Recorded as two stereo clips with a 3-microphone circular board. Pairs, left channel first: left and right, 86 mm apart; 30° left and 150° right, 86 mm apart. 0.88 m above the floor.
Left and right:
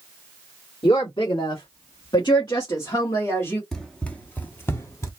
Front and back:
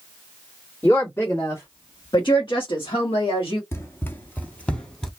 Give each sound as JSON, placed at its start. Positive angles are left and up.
{"t": 0.8, "sound": "a woman speaking", "azimuth_deg": 90, "distance_m": 1.5}
{"t": 3.7, "sound": "running footsteps", "azimuth_deg": 15, "distance_m": 0.9}